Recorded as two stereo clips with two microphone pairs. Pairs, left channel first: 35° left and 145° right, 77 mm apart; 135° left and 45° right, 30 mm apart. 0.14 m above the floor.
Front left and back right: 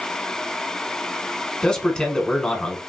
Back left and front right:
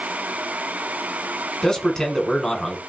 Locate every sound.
1.6 s a man speaking: 90° left, 1.3 m